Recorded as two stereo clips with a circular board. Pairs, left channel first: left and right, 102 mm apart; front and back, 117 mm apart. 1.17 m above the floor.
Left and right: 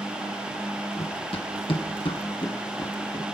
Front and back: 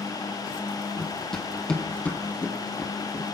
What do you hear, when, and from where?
1.0 s running footsteps: 90° left, 2.5 m; by 3.2 s 40° left, 1.6 m